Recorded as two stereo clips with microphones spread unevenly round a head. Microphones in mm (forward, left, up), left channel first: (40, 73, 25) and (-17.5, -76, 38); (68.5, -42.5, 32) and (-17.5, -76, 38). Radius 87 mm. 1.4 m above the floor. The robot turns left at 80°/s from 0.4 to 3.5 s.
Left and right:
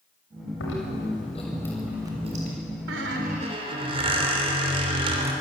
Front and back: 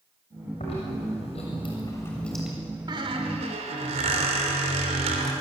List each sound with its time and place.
0.6 s chewing: 75° left, 6.5 m; by 2.6 s 80° right, 6.5 m
2.9 s a squeak: 120° right, 3 m; by 5.3 s 170° right, 3 m